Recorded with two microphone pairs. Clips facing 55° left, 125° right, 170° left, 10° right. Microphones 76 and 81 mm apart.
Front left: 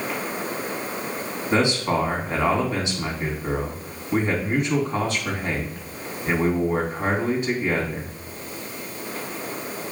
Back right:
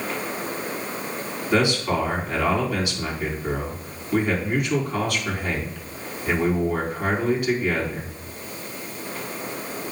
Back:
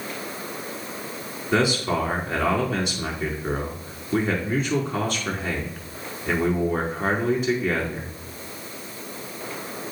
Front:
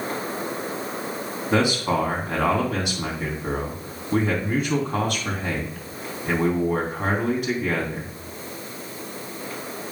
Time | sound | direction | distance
1.5 | a man speaking | straight ahead | 3 m